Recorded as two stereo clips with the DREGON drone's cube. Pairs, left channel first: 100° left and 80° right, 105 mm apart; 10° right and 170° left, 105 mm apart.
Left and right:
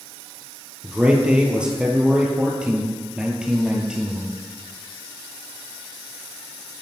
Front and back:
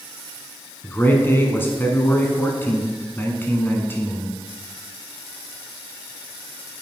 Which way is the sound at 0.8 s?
15° right.